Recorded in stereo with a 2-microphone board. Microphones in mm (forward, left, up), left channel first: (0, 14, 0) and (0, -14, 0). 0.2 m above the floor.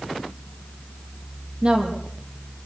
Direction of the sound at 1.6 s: 40° right (ahead or behind).